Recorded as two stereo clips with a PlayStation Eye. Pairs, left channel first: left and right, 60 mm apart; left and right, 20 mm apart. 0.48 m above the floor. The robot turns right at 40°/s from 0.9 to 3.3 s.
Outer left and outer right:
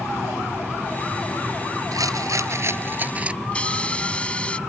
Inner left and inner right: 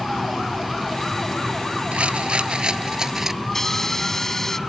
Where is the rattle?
75° right; by 3.3 s 20° right.